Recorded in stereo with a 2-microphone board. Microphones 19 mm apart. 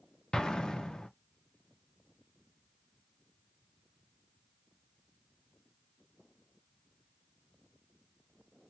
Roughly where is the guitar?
No guitar in this recording.